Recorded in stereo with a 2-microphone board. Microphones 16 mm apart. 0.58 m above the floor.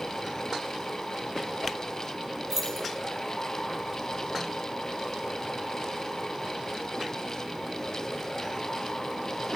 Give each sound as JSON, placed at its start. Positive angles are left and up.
{"t": 2.5, "sound": "keys jangling", "side_deg": -30, "distance_m": 3.0}